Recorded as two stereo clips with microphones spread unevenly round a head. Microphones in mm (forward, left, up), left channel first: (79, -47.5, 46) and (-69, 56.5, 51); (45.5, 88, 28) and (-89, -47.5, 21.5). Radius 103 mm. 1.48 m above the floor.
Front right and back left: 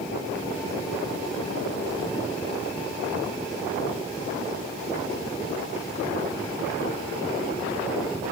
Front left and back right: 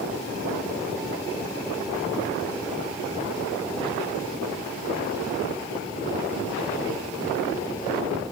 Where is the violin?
I don't hear a violin.